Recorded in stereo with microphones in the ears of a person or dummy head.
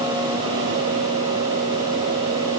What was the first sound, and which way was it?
Only background noise.